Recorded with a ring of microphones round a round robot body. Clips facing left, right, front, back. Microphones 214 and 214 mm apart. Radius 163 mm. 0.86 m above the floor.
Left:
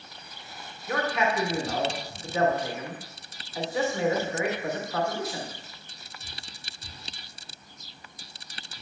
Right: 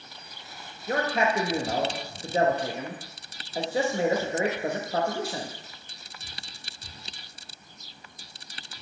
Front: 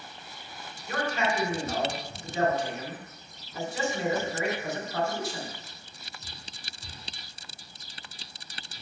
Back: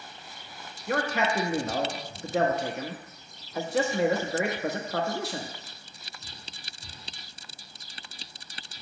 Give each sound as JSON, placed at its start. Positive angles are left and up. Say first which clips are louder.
{"t": 0.9, "sound": "a man speaking", "louder": "right 1 dB, back 2 dB", "azimuth_deg": -150, "distance_m": 0.7}